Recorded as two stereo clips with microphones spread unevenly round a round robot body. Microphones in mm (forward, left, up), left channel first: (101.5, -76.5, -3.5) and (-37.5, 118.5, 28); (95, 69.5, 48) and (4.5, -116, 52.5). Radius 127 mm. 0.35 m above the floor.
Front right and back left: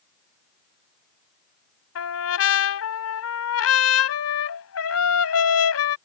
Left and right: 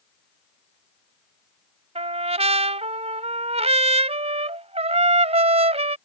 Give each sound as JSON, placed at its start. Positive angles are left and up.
{"t": 1.9, "sound": "a trumpet", "azimuth_deg": -60}